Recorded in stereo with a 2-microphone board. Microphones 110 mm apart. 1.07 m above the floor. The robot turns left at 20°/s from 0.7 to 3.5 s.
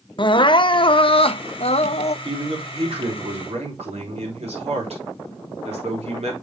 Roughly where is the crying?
Left.